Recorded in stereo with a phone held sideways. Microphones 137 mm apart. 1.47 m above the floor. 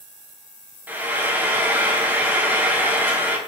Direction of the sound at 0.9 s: 10° right (ahead or behind).